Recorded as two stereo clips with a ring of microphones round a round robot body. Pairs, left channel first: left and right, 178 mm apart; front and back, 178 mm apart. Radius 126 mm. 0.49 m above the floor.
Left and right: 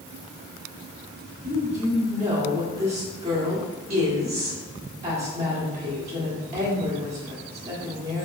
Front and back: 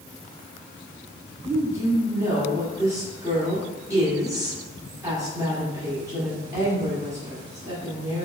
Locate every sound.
1.4 s a woman speaking: 115° right, 1.5 m